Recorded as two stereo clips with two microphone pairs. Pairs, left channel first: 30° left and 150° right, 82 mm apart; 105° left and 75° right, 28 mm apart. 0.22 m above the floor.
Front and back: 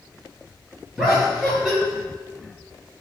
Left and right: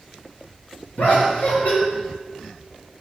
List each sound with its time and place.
1.0 s laughter: 125° left, 4.5 m